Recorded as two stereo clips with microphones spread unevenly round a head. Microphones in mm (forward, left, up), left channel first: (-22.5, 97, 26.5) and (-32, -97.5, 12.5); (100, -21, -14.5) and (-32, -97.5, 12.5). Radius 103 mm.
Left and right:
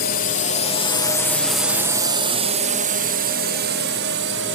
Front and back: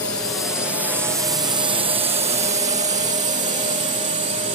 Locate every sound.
0.0 s a drone: 100° left; by 4.5 s 110° right